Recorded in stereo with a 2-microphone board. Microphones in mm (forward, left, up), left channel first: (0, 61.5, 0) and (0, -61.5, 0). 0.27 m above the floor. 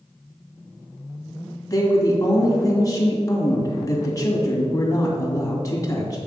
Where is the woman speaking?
30° left (ahead or behind), 2 m.